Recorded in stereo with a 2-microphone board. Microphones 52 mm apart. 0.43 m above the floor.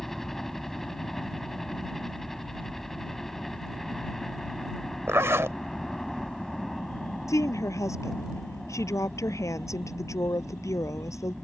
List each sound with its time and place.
0.0 s a helicopter: 5° left (ahead or behind)
5.1 s a zipper: 55° right (ahead or behind)
7.3 s a woman speaking: 80° left